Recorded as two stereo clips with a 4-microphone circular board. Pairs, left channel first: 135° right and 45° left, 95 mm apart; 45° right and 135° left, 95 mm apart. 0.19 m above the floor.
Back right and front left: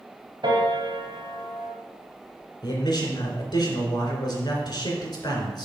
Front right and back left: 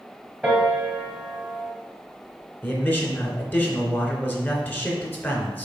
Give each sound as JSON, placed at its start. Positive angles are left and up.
{"t": 0.4, "sound": "a piano", "azimuth_deg": 60, "distance_m": 3.0}
{"t": 2.6, "sound": "a man speaking", "azimuth_deg": -110, "distance_m": 2.5}